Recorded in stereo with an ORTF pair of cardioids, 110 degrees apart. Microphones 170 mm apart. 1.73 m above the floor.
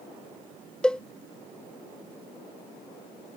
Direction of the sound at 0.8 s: 5° left.